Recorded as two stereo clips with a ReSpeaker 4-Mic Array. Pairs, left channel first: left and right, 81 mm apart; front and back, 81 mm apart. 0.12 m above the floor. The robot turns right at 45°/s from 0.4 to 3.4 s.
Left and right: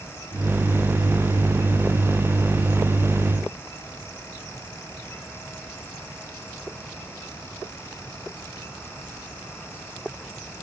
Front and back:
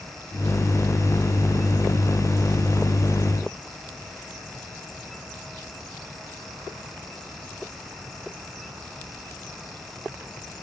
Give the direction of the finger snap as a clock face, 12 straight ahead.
I don't hear a finger snap.